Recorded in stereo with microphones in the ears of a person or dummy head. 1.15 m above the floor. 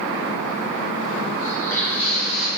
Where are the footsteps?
20° left (ahead or behind), 2.5 m; by 2.5 s 5° right (ahead or behind), 2 m.